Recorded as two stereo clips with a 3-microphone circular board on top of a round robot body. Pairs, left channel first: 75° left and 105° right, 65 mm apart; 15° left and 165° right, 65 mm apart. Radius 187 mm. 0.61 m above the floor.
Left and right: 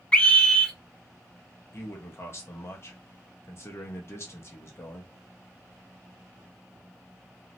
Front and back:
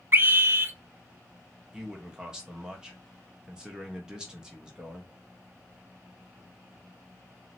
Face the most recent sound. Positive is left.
turn(degrees=115)